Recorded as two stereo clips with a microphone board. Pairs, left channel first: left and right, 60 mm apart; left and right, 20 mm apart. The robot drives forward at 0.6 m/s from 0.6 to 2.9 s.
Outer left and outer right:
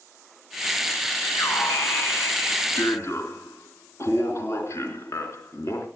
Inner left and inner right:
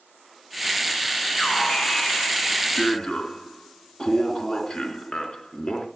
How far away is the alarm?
About 3 m.